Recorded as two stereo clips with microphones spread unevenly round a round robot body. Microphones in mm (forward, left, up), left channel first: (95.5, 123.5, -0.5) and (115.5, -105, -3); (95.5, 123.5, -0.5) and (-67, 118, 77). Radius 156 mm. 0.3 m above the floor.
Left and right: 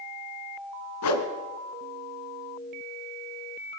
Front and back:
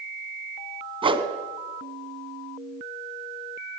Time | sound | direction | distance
1.0 | a whoosh | 115° left | 2.5 m